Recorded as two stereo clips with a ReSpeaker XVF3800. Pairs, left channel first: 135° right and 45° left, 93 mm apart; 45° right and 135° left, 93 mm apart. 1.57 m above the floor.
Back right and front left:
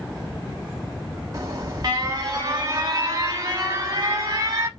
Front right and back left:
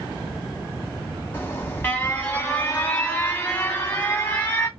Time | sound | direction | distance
1.3 | an alarm | 10° left | 0.9 m